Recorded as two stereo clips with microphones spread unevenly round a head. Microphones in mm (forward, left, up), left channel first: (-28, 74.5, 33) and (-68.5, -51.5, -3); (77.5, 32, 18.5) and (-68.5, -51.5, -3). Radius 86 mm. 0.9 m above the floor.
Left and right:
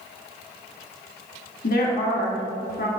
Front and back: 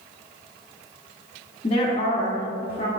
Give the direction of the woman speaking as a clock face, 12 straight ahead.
9 o'clock.